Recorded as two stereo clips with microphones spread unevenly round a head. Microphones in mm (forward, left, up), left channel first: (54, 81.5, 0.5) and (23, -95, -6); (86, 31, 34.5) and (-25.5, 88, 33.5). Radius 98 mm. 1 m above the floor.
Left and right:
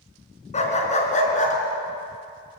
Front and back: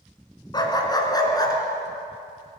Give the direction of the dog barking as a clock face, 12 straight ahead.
11 o'clock.